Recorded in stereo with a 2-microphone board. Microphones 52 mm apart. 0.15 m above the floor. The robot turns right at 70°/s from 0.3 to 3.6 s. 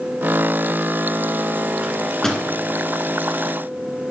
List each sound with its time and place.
1.8 s a microwave: 15° right (ahead or behind), 1.7 m; by 2.4 s 15° left (ahead or behind), 1.7 m